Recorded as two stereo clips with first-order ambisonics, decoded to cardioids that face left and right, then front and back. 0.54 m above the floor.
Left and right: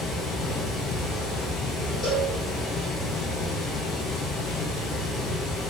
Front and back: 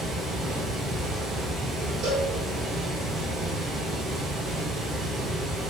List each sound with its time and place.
0.0 s running water: 135° left, 1.7 m
2.0 s a cowbell: 160° left, 1.7 m